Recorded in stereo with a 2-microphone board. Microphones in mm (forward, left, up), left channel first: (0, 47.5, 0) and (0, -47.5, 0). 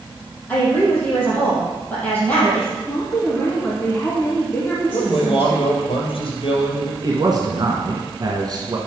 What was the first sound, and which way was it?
A woman speaking, 15° left (ahead or behind).